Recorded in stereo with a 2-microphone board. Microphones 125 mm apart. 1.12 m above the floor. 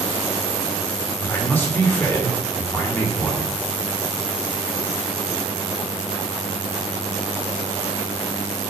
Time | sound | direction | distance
1.2 | a man speaking | 15° left (ahead or behind) | 1.8 m